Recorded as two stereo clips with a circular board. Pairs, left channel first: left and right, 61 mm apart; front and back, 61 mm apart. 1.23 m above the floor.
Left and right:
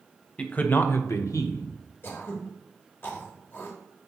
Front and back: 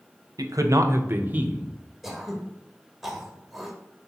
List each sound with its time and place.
0.4 s a man speaking: 160° left, 0.9 m; by 1.7 s 105° left, 1.0 m
2.0 s throat clearing: 95° left, 1.1 m